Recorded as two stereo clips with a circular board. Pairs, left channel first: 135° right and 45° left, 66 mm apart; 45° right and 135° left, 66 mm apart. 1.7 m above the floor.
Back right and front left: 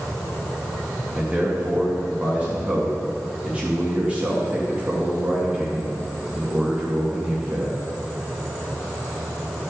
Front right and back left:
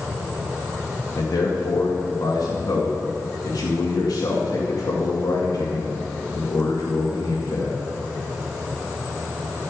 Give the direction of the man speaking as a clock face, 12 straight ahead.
1 o'clock.